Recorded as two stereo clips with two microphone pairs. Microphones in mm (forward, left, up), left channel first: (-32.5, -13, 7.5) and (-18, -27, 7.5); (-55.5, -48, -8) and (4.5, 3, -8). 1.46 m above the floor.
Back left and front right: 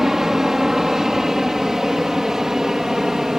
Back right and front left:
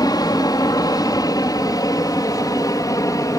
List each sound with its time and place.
0.0 s an aircraft: 115° right; by 3.4 s 105° right